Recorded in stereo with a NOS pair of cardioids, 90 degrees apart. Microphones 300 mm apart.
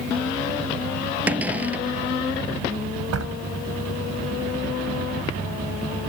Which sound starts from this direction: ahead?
A cupboard door, at 1.3 s.